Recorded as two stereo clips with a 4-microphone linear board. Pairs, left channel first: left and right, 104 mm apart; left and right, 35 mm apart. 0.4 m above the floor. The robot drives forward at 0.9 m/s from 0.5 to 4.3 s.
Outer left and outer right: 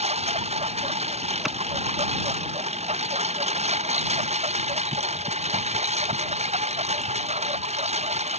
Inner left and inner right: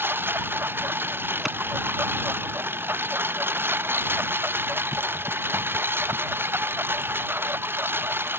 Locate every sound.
0.0 s a lawn mower: 75° right (ahead or behind); by 8.4 s 85° right
1.4 s a clap: centre (ahead or behind)